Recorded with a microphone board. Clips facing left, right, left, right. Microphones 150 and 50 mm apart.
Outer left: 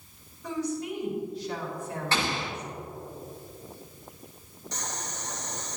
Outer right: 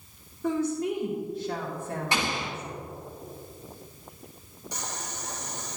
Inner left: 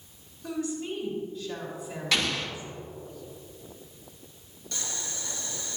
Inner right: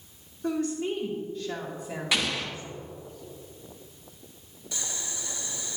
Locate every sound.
0.4 s a woman speaking: 50° right (ahead or behind), 1.8 m
2.1 s an explosion: 15° right (ahead or behind), 1.6 m
4.7 s boiling: 10° right (ahead or behind), 2 m